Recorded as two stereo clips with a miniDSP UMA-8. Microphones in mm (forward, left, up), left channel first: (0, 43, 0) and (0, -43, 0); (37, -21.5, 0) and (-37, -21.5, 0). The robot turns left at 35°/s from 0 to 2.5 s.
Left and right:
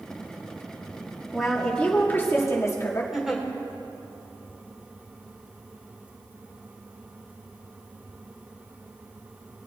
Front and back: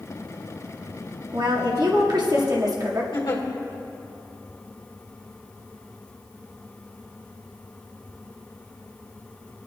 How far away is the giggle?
About 2.0 m.